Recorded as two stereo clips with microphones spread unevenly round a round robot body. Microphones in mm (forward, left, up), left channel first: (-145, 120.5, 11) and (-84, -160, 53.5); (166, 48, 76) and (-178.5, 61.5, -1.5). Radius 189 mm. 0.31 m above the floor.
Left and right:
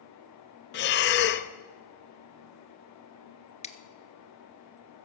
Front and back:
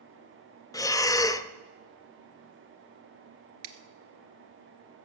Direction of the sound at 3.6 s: 170° left.